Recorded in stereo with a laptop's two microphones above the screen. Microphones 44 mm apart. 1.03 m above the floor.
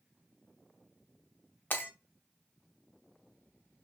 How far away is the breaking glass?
About 0.7 m.